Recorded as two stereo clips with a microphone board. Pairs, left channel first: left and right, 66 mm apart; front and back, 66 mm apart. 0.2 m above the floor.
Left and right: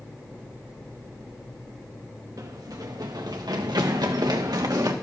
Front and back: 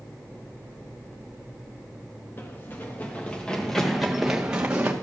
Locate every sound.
2.4 s running footsteps: 55° right, 1.9 m; by 4.9 s 115° right, 1.6 m